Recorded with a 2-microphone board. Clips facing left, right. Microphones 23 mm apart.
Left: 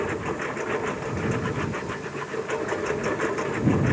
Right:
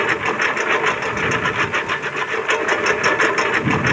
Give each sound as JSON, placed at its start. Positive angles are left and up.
{"t": 0.0, "sound": "a lawn mower", "side_deg": -80}